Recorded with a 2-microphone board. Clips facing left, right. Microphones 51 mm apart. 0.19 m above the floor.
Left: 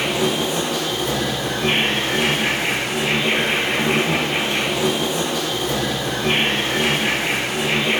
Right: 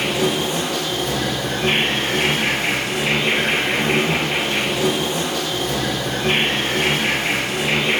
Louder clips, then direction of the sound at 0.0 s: Even; 55° right (ahead or behind).